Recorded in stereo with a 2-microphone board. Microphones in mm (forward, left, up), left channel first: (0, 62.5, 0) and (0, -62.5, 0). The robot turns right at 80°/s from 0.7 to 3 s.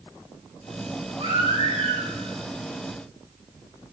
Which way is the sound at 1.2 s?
130° right.